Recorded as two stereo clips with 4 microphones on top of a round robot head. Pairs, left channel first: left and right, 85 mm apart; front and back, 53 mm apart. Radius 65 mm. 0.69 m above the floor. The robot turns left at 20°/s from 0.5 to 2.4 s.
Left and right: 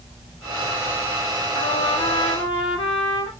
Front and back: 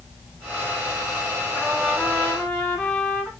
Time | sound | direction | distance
1.5 | a trumpet | 85° left | 7 m